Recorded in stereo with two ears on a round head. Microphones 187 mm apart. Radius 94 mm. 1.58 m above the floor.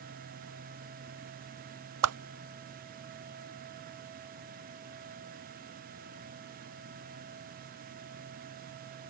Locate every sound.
2.0 s a whoosh: 80° right